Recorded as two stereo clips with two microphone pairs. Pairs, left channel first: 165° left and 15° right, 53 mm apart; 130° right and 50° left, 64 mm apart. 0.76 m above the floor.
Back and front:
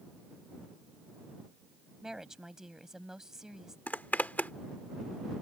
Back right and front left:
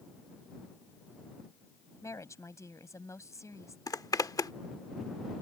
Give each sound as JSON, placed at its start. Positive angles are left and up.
{"t": 2.0, "sound": "a woman speaking", "azimuth_deg": -95}
{"t": 3.9, "sound": "a zipper", "azimuth_deg": -140}